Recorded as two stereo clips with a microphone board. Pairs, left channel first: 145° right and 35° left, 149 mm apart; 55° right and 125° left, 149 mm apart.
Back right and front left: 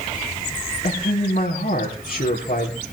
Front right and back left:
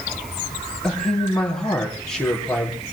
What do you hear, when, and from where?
0.8 s a man speaking: 140° right, 7.5 m